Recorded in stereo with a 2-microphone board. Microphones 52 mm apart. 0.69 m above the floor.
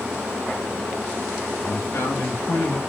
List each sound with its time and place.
1.6 s a man speaking: 70° left (ahead or behind), 5 m; by 2.8 s 75° left (ahead or behind), 5.5 m